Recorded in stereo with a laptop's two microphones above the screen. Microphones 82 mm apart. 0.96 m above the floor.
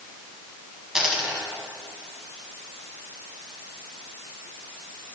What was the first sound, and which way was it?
A dropped coin, 5° right (ahead or behind).